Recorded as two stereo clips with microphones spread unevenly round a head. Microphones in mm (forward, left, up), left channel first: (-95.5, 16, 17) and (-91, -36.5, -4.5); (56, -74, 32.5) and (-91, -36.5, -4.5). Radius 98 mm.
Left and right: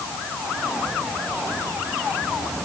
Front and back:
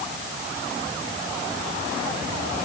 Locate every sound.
Only background noise.